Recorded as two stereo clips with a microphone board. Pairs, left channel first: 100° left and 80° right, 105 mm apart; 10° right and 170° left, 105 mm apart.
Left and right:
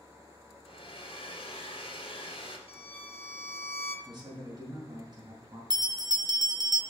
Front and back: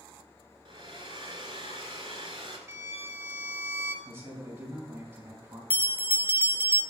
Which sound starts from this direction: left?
A violin, at 2.7 s.